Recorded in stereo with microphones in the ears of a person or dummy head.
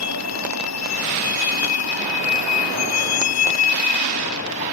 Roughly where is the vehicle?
Left.